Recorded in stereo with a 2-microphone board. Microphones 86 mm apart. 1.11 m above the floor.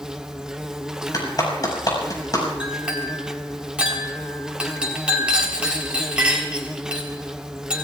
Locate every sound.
0.0 s an insect: 5° right (ahead or behind), 0.9 m
1.1 s a clap: 45° left (ahead or behind), 6 m
2.6 s a clink: 10° right (ahead or behind), 4 m